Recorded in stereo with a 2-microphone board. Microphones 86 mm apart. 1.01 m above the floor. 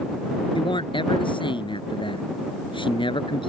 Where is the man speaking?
65° left (ahead or behind).